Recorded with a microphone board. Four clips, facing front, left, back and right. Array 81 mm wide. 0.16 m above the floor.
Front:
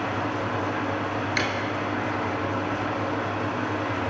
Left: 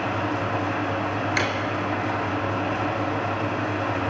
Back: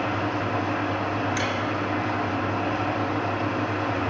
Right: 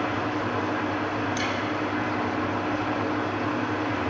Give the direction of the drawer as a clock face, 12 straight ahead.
10 o'clock.